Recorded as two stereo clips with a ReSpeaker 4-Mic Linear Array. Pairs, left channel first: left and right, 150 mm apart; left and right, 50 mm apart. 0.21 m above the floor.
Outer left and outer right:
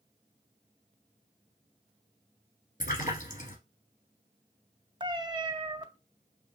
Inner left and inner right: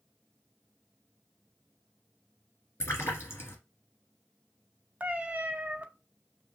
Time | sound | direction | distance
2.8 | a splash | 55° left (ahead or behind) | 1.7 m
5.0 | a cat meowing | 30° right (ahead or behind) | 0.7 m